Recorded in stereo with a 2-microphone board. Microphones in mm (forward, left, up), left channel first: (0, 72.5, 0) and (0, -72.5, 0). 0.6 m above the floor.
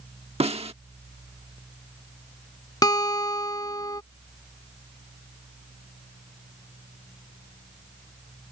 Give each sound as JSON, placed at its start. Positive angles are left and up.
{"t": 0.4, "sound": "a snare drum", "side_deg": -45}
{"t": 2.8, "sound": "a guitar", "side_deg": 25}